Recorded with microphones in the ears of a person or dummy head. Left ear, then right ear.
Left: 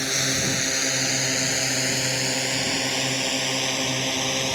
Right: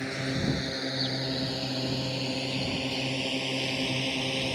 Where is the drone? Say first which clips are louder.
Left 8 dB; 75° left (ahead or behind); by 4.5 s 50° left (ahead or behind).